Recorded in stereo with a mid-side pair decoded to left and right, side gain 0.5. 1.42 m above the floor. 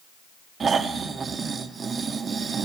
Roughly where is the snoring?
Ahead right.